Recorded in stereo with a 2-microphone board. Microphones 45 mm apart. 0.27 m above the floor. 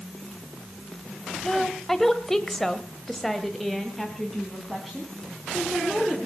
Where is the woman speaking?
10° left (ahead or behind), 1.7 m; by 6.3 s 5° right (ahead or behind), 4 m.